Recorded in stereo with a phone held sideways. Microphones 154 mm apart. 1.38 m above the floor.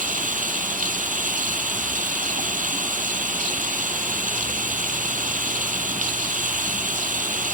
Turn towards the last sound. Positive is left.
turn(degrees=-60)  # may be behind; listen again after turning